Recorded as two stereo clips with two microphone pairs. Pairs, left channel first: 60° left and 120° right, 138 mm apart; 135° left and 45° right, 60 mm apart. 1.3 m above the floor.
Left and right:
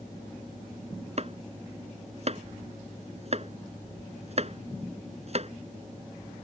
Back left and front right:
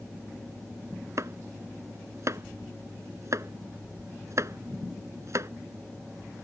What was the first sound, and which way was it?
Chopping, 80° right.